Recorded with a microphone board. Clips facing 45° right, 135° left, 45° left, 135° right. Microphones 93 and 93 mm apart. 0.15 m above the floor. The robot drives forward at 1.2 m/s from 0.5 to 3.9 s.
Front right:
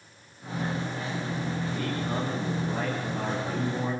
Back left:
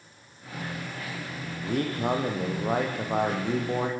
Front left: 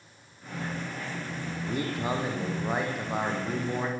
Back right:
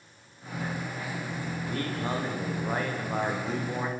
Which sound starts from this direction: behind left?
A man speaking, at 1.6 s.